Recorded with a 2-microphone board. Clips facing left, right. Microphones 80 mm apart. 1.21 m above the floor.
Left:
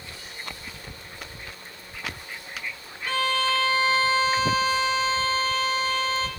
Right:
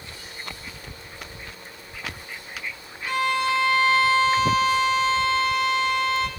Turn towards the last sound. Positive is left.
turn(degrees=-15)  # may be behind; listen again after turning